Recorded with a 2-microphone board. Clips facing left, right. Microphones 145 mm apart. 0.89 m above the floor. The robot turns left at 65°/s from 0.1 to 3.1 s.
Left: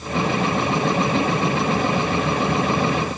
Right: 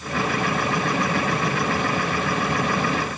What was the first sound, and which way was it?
Only background noise.